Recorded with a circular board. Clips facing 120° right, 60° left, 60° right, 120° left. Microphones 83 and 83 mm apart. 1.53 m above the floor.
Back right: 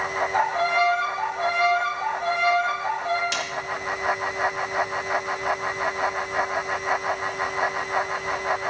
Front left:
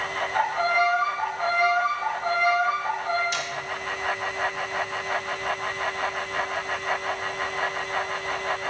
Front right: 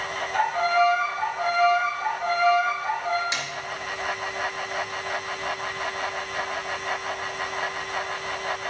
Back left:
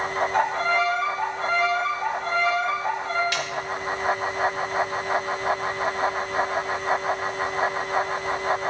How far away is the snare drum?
About 2.0 m.